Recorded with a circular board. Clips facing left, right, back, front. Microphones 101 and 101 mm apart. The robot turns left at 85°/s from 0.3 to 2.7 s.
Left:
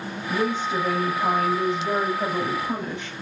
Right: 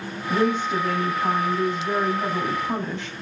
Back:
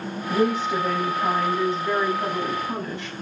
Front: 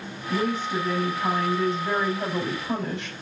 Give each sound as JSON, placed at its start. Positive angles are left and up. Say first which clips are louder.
{"t": 0.3, "sound": "a woman speaking", "louder": "right 3 dB, back 4 dB", "azimuth_deg": -140, "distance_m": 4.5}